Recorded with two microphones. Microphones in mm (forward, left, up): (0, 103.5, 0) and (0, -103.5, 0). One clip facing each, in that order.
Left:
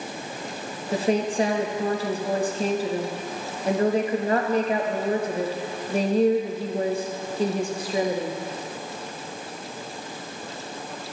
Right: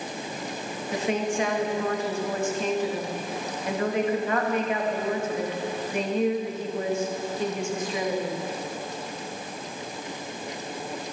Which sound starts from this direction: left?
A woman speaking, at 0.9 s.